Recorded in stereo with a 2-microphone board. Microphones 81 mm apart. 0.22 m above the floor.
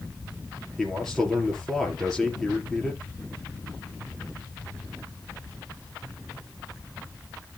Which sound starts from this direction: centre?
A man speaking, at 0.8 s.